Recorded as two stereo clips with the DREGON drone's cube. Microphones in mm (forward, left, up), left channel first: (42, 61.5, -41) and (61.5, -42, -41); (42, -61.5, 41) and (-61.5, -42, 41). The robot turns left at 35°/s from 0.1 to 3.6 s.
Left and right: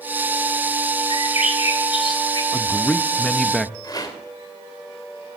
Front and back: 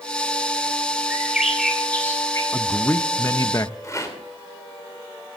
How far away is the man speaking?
About 0.7 m.